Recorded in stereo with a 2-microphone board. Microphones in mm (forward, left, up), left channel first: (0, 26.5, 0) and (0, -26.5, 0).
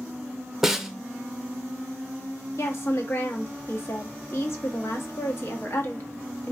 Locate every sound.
0.6 s a snare drum: 10° right (ahead or behind), 0.5 m
2.6 s a woman speaking: 50° left (ahead or behind), 1.1 m